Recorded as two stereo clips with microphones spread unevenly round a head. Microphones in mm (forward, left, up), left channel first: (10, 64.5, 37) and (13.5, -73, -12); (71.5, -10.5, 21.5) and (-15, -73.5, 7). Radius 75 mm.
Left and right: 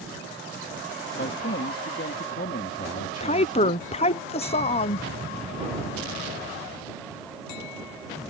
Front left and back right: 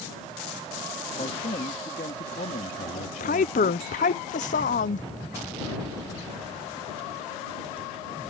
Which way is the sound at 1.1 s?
80° left.